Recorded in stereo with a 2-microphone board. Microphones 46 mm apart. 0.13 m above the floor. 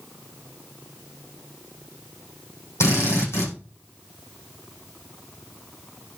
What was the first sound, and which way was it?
A drill, 75° left (ahead or behind).